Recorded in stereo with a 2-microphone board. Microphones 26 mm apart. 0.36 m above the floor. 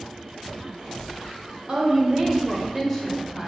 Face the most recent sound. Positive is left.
turn(degrees=5)  # may be behind; listen again after turning